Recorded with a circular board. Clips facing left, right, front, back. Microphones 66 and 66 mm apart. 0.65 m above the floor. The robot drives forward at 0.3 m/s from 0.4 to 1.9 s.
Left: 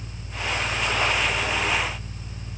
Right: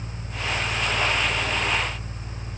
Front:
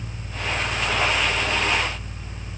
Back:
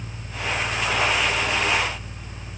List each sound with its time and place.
Only background noise.